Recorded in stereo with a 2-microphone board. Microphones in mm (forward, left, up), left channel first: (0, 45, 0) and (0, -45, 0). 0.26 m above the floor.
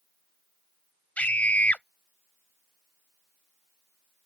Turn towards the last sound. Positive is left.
turn(degrees=15)  # may be behind; listen again after turning